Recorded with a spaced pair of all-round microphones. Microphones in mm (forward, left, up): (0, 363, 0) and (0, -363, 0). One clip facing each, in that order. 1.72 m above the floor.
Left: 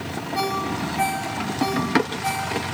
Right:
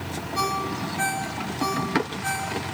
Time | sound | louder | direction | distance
0.3 | a ringtone | left 4 dB | 30° left (ahead or behind) | 7.5 m